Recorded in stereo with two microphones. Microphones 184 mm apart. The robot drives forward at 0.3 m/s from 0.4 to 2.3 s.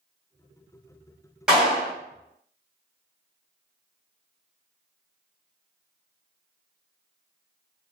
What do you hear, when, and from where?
1.5 s a clap: 5° right (ahead or behind), 1.6 m